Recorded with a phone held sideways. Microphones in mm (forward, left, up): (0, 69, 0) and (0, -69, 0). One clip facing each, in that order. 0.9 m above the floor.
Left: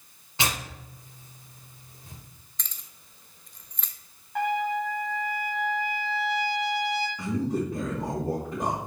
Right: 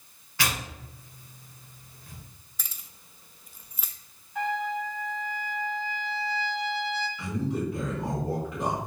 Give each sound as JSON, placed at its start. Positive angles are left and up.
{"t": 0.4, "sound": "tearing paper", "side_deg": 25, "distance_m": 1.2}
{"t": 2.6, "sound": "keys jangling", "side_deg": -5, "distance_m": 0.6}
{"t": 4.3, "sound": "a trumpet", "side_deg": 80, "distance_m": 1.2}
{"t": 7.2, "sound": "a man speaking", "side_deg": 45, "distance_m": 1.9}